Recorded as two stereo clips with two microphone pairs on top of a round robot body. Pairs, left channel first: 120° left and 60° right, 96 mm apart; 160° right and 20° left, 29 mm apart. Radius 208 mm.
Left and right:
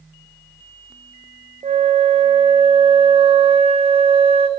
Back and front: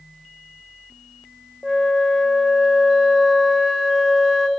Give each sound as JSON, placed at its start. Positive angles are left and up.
{"t": 1.6, "sound": "a flute", "azimuth_deg": -70, "distance_m": 1.6}